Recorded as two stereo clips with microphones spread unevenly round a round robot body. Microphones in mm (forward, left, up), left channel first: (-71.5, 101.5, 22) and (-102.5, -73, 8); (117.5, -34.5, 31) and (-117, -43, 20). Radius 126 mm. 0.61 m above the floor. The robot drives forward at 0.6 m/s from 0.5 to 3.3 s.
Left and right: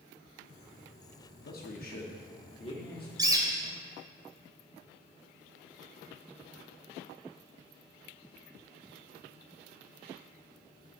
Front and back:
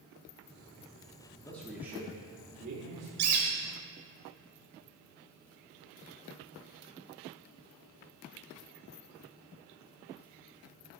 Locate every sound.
1.4 s a man speaking: 75° left, 0.9 m; by 3.1 s 145° left, 1.2 m
3.2 s a bird: 170° right, 1.2 m